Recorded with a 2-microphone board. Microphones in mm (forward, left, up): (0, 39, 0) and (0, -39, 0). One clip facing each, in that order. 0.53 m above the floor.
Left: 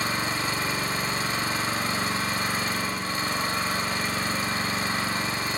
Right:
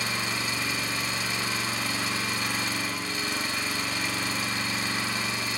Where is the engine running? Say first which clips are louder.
Left 3 dB; 40° left (ahead or behind), 1.2 m.